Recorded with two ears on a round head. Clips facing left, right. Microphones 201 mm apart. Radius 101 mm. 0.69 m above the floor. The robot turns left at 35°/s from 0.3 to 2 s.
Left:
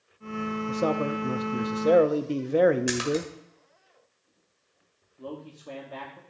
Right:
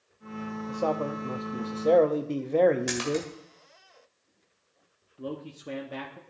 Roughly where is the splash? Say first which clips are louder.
Left 2 dB; centre.